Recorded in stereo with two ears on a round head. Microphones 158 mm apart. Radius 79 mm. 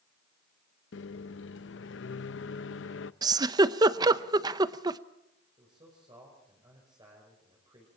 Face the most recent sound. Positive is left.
turn(degrees=-25)  # may be behind; listen again after turning